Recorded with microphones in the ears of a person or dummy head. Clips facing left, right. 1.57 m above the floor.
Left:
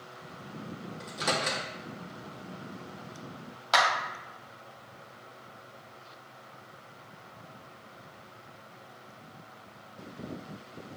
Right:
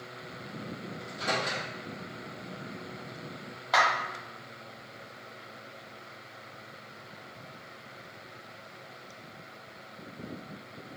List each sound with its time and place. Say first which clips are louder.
1.0 s a microwave: left 1 dB; 65° left (ahead or behind), 0.9 m
3.7 s a clap: even; 35° left (ahead or behind), 1.1 m